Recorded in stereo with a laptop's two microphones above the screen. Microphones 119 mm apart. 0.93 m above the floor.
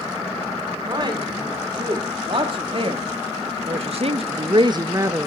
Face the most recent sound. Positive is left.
turn(degrees=-20)  # may be behind; listen again after turning